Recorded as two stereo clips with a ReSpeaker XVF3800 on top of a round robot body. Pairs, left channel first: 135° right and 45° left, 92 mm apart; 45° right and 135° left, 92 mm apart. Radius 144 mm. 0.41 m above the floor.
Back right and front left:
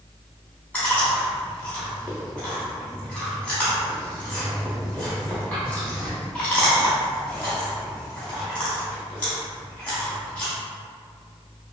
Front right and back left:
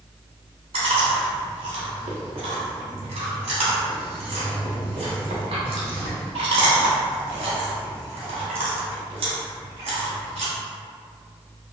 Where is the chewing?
150° left, 0.5 m.